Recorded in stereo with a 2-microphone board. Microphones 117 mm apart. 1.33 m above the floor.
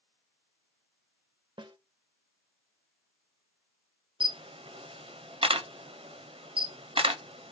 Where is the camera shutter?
50° right (ahead or behind), 0.6 m.